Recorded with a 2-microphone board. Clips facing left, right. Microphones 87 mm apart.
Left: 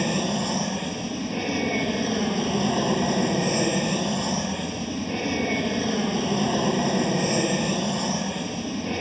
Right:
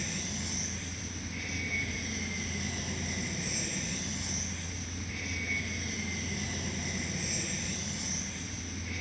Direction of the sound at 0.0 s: 65° left (ahead or behind).